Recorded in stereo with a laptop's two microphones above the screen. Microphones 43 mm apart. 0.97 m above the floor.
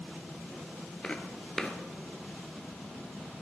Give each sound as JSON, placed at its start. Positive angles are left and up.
{"t": 1.0, "sound": "footsteps", "side_deg": 20, "distance_m": 1.0}